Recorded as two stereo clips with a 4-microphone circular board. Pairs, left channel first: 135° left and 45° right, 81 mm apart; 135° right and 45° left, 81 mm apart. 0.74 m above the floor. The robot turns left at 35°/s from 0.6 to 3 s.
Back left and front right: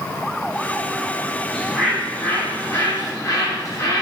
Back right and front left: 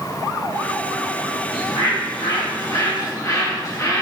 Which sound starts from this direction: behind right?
A bird, at 1.5 s.